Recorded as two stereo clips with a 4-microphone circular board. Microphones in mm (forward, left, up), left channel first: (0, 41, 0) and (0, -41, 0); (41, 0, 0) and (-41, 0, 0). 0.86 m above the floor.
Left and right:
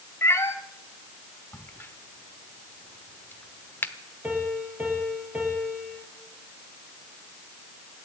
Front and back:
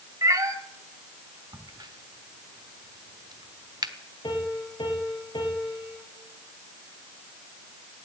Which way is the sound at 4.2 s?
20° right.